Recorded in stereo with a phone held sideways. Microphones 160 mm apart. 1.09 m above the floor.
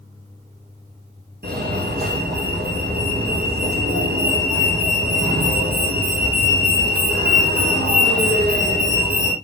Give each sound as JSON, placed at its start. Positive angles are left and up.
{"t": 1.4, "sound": "a fire alarm", "side_deg": -75, "distance_m": 5.0}